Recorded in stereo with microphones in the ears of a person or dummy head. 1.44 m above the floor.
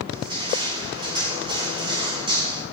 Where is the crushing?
30° right (ahead or behind), 7 m.